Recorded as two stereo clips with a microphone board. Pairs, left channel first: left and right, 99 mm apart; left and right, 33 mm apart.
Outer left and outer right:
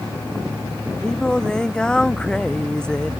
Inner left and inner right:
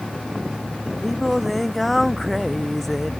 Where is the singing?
5° left (ahead or behind).